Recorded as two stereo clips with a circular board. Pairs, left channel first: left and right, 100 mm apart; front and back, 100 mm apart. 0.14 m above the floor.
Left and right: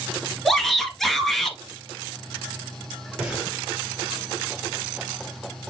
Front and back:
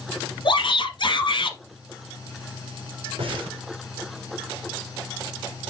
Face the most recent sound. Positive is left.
turn(degrees=-170)